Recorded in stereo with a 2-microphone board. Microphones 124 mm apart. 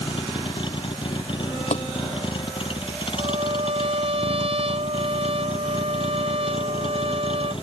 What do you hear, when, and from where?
0.0 s a vehicle: 40° left (ahead or behind); by 7.6 s 45° left (ahead or behind)
1.7 s tapping: 70° left (ahead or behind)
3.2 s a trumpet: 55° right (ahead or behind)